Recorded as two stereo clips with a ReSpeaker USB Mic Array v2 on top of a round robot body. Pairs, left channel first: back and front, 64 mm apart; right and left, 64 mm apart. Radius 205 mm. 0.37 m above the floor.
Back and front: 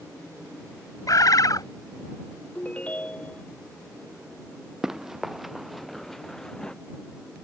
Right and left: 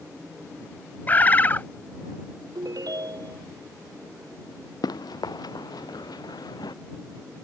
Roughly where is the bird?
Behind right.